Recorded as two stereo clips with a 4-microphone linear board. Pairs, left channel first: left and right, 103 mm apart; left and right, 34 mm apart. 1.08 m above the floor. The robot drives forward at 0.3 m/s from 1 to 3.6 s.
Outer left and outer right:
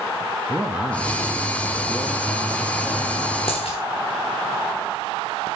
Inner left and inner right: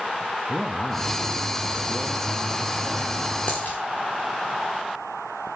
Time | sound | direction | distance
0.5 | a man speaking | 15° right (ahead or behind) | 1.3 m
3.5 | a dropped coin | 70° left (ahead or behind) | 5 m